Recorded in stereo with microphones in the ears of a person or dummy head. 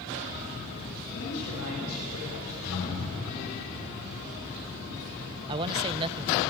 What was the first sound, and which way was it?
A man speaking, 85° left.